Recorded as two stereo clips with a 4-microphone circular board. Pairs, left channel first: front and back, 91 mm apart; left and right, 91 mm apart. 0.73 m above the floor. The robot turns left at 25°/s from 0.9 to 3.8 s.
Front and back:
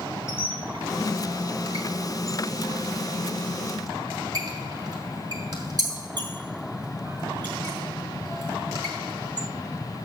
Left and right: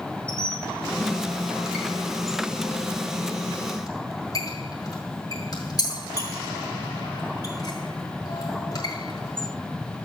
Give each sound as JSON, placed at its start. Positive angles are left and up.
{"t": 0.3, "sound": "a squeak", "azimuth_deg": -155, "distance_m": 5.5}